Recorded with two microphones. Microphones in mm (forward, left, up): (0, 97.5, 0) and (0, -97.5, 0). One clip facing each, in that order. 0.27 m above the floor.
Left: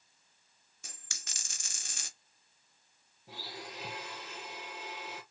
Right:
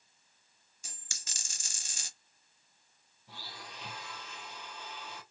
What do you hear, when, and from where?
0.8 s a dropped coin: 60° left (ahead or behind), 1.4 m
3.3 s a blender: 75° left (ahead or behind), 3 m